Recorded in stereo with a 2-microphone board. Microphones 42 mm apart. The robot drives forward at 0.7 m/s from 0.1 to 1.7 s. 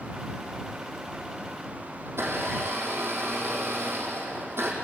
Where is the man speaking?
No man speaking in this recording.